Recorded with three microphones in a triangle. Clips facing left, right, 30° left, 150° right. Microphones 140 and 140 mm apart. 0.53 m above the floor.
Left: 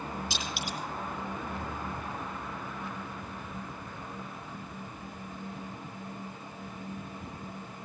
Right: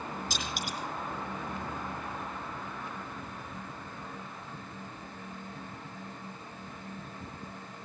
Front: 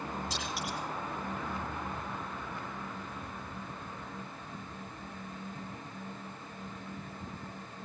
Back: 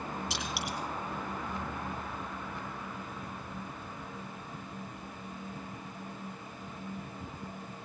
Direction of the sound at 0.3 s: 140° right.